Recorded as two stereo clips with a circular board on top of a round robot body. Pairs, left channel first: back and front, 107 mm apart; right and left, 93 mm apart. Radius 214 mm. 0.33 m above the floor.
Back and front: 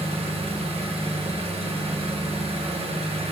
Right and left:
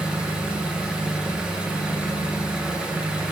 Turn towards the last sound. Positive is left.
turn(degrees=10)